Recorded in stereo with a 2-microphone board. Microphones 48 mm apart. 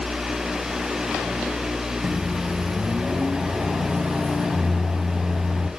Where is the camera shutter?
I don't hear a camera shutter.